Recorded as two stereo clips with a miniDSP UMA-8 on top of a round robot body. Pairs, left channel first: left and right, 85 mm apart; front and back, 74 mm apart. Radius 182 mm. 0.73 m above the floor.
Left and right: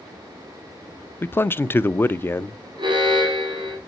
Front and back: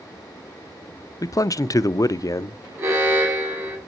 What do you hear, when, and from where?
1.2 s a man speaking: 30° left, 0.5 m
2.8 s an alarm: 125° right, 3 m